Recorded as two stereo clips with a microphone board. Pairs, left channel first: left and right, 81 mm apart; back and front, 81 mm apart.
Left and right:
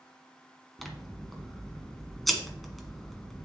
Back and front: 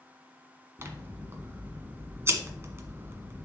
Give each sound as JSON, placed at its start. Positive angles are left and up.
{"t": 0.8, "sound": "scissors", "azimuth_deg": 0, "distance_m": 1.7}